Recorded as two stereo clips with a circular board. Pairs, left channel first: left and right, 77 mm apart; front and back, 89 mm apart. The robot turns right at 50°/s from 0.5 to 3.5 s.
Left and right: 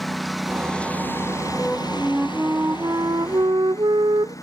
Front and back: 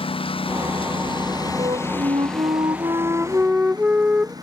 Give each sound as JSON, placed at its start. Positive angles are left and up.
{"t": 0.0, "sound": "a lawn mower", "azimuth_deg": 0}
{"t": 1.6, "sound": "a flute", "azimuth_deg": 160}